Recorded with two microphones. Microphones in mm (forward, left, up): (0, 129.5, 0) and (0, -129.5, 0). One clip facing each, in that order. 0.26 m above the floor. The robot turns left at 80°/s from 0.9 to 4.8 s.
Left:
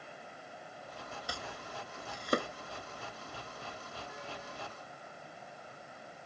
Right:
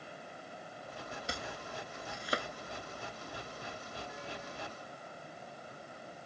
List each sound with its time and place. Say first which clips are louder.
1.3 s chopping: right 2 dB; 25° right (ahead or behind); by 2.5 s 60° left (ahead or behind)